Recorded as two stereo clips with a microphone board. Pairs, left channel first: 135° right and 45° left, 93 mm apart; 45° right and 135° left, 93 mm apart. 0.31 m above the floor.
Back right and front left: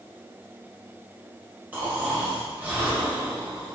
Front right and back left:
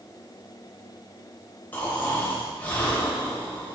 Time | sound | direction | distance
1.7 | snoring | straight ahead | 1.5 m